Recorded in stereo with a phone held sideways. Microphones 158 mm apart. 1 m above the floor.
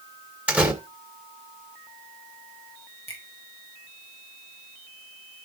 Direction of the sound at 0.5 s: 10° right (ahead or behind).